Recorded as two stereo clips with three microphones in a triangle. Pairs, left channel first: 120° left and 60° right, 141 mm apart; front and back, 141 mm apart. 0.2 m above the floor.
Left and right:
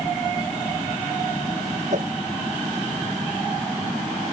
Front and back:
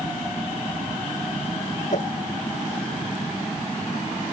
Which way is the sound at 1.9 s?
30° right.